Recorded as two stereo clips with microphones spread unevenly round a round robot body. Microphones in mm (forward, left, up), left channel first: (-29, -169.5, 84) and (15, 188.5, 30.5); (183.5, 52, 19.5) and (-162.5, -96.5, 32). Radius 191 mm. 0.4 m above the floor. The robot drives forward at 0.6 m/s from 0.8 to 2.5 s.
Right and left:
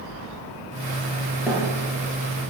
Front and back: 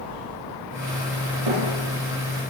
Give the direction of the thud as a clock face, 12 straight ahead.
6 o'clock.